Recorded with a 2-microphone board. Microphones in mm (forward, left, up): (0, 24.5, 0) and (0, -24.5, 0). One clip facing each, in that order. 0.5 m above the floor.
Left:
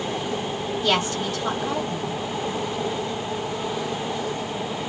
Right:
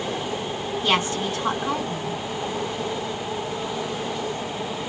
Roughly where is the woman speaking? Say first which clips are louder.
Right 1 dB; right.